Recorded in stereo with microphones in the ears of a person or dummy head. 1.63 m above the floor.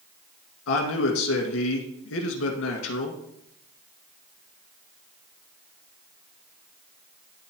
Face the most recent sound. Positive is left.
turn(degrees=75)  # may be behind; listen again after turning